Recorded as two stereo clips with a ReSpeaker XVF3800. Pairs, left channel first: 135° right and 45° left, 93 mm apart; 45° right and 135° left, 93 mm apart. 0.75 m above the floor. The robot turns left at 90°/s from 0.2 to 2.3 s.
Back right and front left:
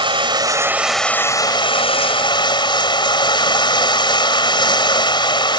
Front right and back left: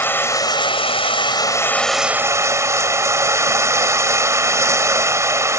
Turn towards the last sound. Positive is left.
turn(degrees=-165)